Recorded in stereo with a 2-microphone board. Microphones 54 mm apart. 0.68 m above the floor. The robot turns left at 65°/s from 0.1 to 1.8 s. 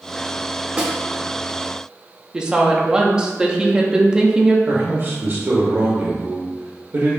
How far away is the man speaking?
About 0.7 m.